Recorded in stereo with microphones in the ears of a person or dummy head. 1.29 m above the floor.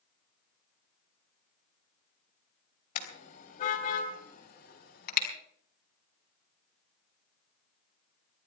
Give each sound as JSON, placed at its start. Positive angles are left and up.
{"t": 3.0, "sound": "a car horn", "side_deg": 40, "distance_m": 3.5}